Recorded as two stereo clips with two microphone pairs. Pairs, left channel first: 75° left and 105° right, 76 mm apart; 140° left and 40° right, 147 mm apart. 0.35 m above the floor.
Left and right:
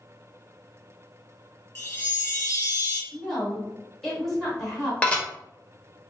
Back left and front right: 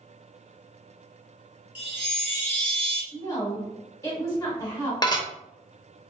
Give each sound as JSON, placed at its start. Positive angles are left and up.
{"t": 1.8, "sound": "a chime", "azimuth_deg": 40, "distance_m": 1.4}
{"t": 3.1, "sound": "a woman speaking", "azimuth_deg": 160, "distance_m": 1.3}
{"t": 5.0, "sound": "dishes clattering", "azimuth_deg": 135, "distance_m": 0.6}